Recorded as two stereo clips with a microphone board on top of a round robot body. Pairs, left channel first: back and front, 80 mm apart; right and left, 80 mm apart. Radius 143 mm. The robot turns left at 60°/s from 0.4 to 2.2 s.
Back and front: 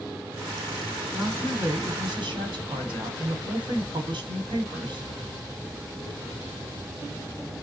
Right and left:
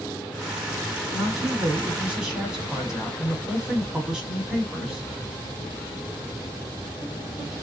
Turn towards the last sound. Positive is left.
turn(degrees=5)